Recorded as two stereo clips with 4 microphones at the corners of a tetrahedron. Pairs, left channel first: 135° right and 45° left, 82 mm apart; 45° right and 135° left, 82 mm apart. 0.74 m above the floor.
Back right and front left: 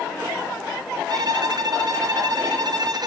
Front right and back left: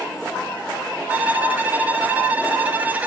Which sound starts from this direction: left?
A violin, at 1.1 s.